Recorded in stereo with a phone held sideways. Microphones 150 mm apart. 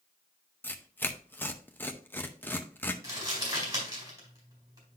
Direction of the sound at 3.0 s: 25° right (ahead or behind).